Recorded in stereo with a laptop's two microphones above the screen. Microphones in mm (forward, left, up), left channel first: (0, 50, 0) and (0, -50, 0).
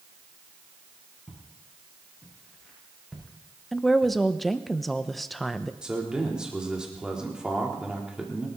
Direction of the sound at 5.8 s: 10° right (ahead or behind).